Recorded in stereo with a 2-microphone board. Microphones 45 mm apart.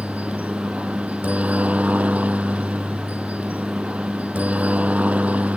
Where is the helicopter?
30° right (ahead or behind).